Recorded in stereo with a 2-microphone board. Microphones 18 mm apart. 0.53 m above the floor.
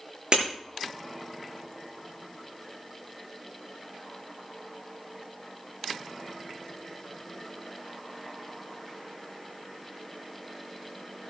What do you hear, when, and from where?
0.3 s breaking glass: 50° right (ahead or behind), 7 m